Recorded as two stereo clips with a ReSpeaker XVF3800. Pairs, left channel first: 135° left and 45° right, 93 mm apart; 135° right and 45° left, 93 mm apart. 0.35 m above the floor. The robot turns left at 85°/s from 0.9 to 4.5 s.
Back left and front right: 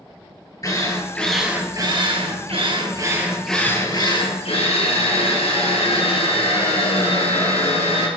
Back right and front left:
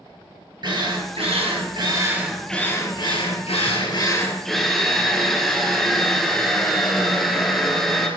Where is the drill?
85° left, 3.5 m; by 8.1 s 135° left, 3.5 m.